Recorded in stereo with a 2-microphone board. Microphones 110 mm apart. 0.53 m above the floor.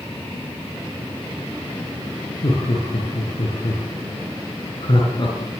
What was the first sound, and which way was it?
Laughter, 55° left (ahead or behind).